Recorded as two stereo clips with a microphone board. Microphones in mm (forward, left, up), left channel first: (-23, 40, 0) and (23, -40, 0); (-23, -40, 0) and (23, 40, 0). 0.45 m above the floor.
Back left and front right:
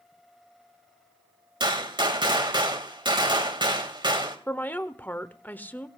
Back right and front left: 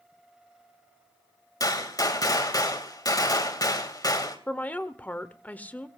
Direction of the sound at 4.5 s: Straight behind.